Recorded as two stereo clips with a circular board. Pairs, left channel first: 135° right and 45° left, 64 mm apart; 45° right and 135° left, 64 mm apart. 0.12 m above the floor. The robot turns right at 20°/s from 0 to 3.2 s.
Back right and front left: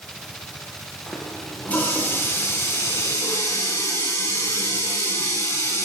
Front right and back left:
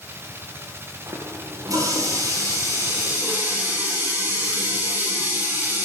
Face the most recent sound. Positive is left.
turn(degrees=-175)